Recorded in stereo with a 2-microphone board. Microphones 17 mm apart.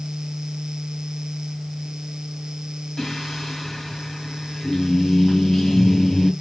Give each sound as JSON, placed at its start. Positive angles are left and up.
{"t": 3.0, "sound": "singing", "side_deg": 40, "distance_m": 2.5}